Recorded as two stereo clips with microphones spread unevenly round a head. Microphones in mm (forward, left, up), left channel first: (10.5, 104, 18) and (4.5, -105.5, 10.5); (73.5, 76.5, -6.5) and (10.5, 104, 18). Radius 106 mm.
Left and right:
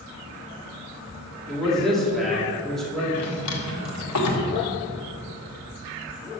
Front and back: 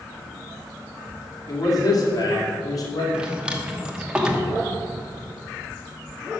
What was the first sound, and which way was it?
A man speaking, straight ahead.